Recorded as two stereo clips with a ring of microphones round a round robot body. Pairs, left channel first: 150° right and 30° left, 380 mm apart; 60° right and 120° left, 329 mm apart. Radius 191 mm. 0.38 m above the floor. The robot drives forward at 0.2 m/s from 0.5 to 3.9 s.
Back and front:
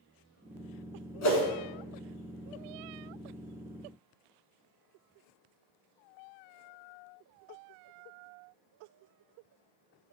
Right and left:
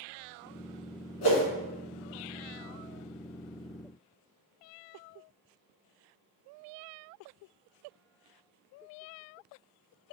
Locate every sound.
1.2 s a whoosh: 95° right, 1.1 m; by 1.4 s 100° right, 1.1 m